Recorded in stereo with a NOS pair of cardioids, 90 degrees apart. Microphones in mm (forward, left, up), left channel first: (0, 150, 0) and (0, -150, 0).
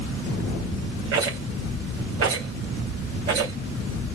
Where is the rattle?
60° right, 3.5 m.